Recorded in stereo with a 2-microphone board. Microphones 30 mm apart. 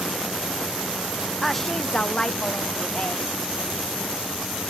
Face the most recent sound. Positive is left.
turn(degrees=45)  # may be behind; listen again after turning